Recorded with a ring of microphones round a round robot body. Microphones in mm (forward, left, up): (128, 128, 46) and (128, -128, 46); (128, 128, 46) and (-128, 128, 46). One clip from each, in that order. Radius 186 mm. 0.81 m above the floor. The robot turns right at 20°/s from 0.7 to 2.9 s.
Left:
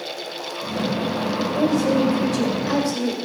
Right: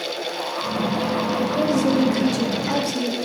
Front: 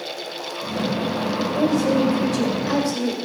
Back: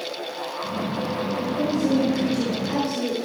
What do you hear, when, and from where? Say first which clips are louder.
1.4 s a woman speaking: left 2 dB, front 5 dB; 35° right, 2 m; by 3.2 s 5° right, 2 m